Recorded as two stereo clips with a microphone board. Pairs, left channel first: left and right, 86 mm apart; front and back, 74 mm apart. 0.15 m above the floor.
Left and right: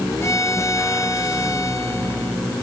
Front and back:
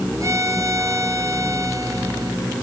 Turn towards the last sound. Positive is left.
turn(degrees=145)